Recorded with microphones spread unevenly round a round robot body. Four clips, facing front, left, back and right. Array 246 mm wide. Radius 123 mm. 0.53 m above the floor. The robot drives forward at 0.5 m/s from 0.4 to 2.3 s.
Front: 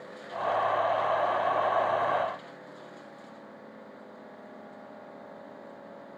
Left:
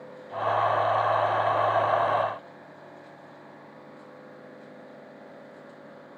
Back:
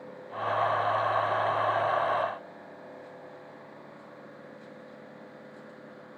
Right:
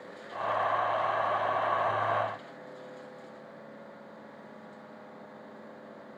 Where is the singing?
I don't hear singing.